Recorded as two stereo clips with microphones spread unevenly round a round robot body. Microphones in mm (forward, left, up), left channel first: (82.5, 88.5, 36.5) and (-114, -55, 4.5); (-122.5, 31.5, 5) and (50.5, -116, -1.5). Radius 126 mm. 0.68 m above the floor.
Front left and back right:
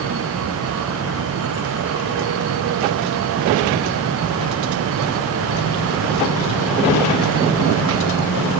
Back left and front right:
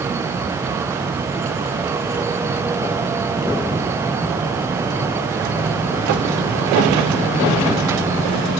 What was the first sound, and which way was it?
Only background noise.